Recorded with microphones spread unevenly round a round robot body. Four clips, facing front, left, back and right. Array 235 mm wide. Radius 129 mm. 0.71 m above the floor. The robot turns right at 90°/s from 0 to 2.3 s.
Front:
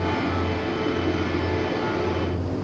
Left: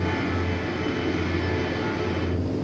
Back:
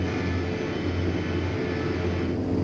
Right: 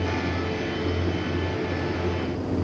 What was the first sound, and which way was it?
Only background noise.